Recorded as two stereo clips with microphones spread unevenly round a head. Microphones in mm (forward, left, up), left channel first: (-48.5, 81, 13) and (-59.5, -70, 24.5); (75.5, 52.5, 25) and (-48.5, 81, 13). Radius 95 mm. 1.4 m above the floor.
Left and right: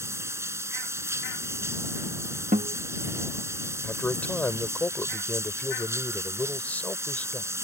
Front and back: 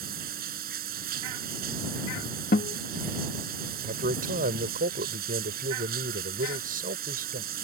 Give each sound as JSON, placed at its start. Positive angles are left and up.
{"t": 0.0, "sound": "running water", "azimuth_deg": -165}
{"t": 2.5, "sound": "a guitar", "azimuth_deg": -40}
{"t": 3.8, "sound": "a man speaking", "azimuth_deg": 165}